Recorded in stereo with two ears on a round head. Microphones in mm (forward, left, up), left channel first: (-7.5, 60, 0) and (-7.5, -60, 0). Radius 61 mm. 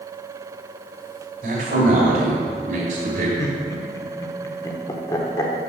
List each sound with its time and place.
1.4 s a man speaking: 65° right (ahead or behind), 3 m
3.4 s laughter: 25° left (ahead or behind), 1.2 m